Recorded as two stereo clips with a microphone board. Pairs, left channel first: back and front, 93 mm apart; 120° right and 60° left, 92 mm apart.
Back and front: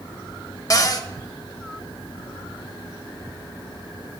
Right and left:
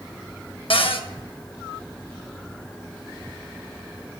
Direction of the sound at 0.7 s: 130° right.